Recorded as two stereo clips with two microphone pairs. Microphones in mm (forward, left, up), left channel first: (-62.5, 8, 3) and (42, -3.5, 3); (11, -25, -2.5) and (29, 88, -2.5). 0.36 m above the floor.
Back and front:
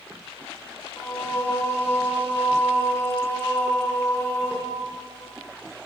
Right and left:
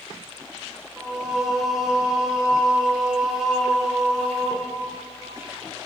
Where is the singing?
155° left, 1.2 m.